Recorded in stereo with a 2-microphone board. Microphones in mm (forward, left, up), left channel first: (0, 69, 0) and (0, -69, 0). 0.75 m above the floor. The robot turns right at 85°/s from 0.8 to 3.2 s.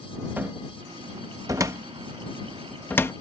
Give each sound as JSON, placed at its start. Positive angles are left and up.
{"t": 0.4, "sound": "a cupboard door", "side_deg": -15}